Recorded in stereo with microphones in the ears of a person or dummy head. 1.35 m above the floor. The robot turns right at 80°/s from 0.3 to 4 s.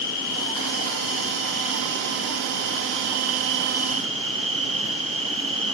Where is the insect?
60° left, 2 m; by 5.7 s 5° right, 2 m.